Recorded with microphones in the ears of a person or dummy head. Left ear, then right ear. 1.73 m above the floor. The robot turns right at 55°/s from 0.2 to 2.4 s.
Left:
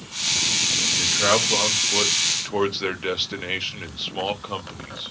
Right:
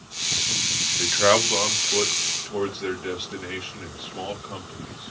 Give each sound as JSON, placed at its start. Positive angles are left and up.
{"t": 1.0, "sound": "a man speaking", "side_deg": -35, "distance_m": 0.8}